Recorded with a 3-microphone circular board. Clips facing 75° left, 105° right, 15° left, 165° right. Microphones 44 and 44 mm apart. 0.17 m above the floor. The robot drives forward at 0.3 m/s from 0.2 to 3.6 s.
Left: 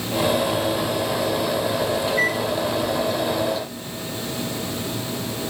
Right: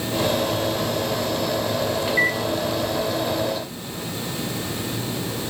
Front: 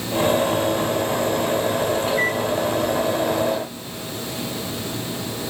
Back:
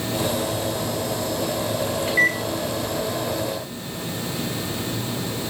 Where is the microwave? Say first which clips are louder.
Right 2 dB, back 1 dB; 135° right, 1.8 m; by 2.4 s 140° right, 1.9 m.